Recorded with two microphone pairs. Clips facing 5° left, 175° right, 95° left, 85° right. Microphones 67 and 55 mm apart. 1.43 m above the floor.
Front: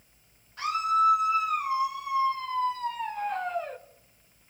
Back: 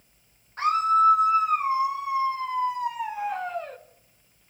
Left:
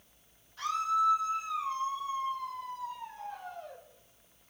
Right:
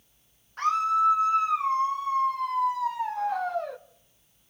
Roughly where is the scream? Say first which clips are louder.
Back 4 dB, right 6 dB; behind right.